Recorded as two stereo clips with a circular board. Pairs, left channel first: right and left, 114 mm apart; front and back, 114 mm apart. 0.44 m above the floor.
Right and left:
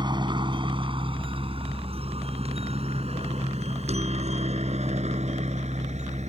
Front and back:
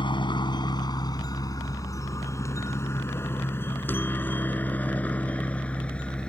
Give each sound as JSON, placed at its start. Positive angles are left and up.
{"t": 0.0, "sound": "a helicopter", "azimuth_deg": 45}